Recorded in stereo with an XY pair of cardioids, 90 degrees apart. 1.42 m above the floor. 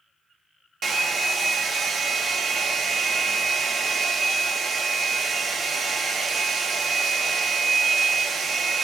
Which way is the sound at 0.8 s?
55° right.